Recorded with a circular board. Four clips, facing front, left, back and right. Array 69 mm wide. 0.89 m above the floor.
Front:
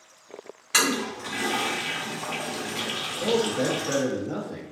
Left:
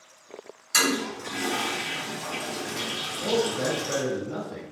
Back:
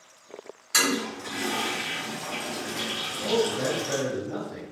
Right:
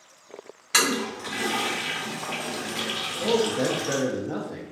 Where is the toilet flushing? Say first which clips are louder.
Right 1 dB, front 1 dB; 60° right, 0.6 m.